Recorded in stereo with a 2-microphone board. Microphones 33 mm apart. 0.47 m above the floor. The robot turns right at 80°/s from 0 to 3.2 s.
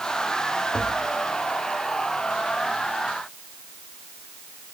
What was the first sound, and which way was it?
Tapping, 20° left.